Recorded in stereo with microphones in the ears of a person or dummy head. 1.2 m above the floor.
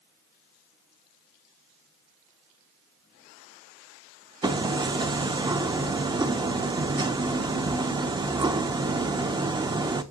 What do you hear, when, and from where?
4.4 s hammering: 20° right (ahead or behind), 0.6 m